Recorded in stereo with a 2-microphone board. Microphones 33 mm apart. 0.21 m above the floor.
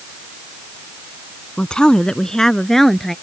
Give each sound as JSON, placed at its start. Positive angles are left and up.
{"t": 1.6, "sound": "a woman speaking", "side_deg": 35}